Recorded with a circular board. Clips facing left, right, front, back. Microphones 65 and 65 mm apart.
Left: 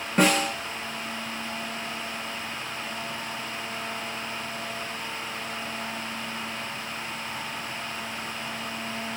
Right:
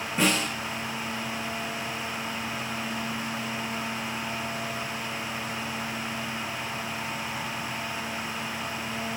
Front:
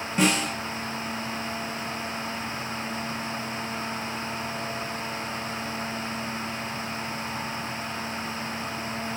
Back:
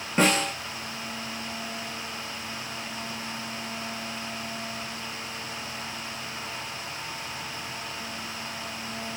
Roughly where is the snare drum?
Behind left.